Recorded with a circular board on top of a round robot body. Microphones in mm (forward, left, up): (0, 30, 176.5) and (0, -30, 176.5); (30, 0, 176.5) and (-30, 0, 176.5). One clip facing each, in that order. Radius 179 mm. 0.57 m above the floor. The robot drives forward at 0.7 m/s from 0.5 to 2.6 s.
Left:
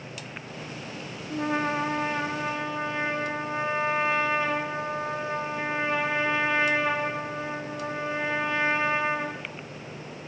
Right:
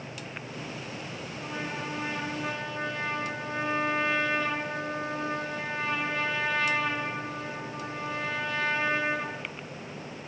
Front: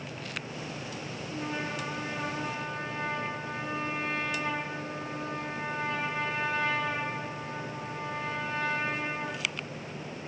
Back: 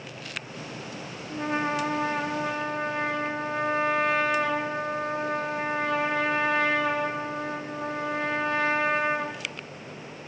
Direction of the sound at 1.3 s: 115° left.